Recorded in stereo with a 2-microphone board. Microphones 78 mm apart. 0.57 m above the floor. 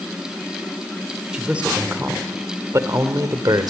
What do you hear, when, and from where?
1.3 s a man speaking: 10° right (ahead or behind), 1.8 m; by 3.7 s 55° right (ahead or behind), 1.9 m